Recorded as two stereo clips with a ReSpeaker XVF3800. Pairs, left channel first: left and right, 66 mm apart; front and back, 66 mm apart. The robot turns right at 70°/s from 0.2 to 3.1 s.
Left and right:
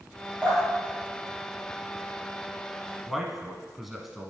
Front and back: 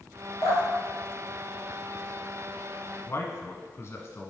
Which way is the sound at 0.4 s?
15° left.